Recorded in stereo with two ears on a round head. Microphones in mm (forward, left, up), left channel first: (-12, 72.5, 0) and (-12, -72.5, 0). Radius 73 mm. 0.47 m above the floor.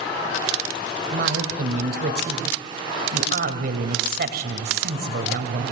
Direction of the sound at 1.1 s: 65° right (ahead or behind).